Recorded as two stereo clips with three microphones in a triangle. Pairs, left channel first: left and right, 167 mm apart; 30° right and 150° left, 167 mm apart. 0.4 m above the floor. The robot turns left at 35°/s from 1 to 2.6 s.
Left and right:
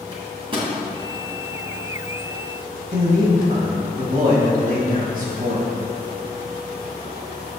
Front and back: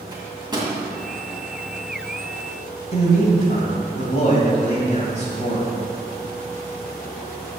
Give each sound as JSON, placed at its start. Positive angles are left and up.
{"t": 0.1, "sound": "a microwave", "azimuth_deg": -145, "distance_m": 2.0}
{"t": 2.9, "sound": "a man speaking", "azimuth_deg": -65, "distance_m": 2.0}